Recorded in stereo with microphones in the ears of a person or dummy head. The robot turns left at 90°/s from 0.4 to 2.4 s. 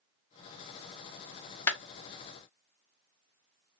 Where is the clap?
20° left (ahead or behind), 1.0 m; by 1.8 s 5° left (ahead or behind), 1.0 m.